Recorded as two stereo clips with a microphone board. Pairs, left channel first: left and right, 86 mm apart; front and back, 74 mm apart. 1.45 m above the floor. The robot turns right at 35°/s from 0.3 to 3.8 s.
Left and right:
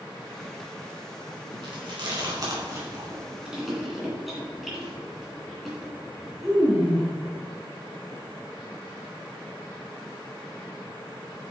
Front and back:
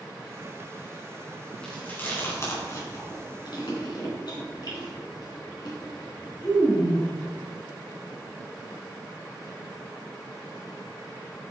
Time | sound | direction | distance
1.6 | chewing | 75° right | 3 m